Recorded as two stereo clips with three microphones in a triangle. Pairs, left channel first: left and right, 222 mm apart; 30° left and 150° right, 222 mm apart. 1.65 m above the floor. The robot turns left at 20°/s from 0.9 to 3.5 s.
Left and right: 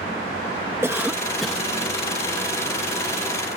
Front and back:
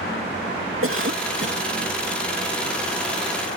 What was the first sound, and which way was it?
A cough, 170° right.